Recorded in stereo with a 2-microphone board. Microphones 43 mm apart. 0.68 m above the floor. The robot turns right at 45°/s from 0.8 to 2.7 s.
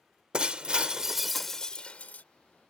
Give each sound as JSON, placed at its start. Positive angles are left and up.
{"t": 0.3, "sound": "breaking glass", "azimuth_deg": -20}